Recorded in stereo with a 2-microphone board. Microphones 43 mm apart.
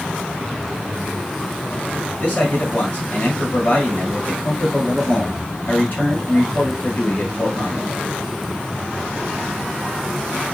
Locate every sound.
2.2 s a man speaking: 50° left (ahead or behind), 1.7 m